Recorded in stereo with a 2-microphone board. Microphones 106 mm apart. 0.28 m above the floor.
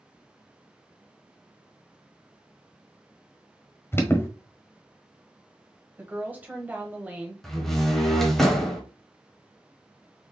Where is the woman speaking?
15° right (ahead or behind), 1.0 m.